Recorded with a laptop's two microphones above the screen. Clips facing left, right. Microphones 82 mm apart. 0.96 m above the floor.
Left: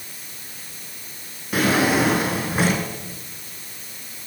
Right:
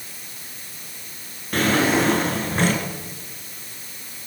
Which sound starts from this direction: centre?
A drawer, at 1.5 s.